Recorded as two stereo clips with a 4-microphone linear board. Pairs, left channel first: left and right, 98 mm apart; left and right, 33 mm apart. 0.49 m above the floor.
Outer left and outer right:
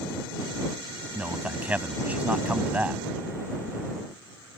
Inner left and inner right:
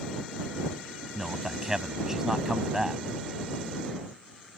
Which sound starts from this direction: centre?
A man speaking, at 1.1 s.